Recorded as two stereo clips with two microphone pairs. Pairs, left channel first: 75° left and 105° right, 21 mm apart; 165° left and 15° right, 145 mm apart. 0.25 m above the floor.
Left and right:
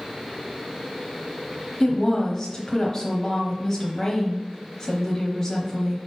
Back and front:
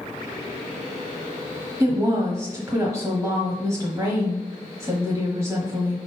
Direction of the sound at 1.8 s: 20° left.